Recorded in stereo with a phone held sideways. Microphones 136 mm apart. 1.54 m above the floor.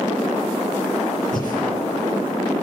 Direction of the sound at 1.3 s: 70° left (ahead or behind).